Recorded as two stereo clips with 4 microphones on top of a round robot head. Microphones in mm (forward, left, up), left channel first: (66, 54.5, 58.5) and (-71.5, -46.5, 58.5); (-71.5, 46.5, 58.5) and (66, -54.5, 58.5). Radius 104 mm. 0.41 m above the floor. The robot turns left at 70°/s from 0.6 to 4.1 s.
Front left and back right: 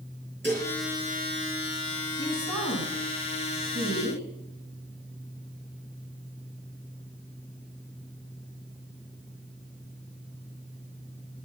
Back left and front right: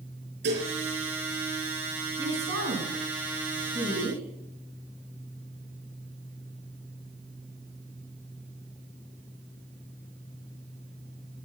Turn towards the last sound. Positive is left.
turn(degrees=-160)